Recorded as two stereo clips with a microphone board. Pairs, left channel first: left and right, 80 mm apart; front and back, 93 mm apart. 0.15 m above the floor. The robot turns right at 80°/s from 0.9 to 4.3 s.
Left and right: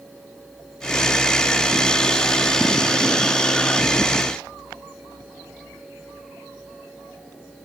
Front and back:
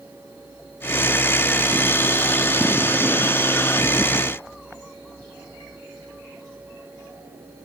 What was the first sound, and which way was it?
Only background noise.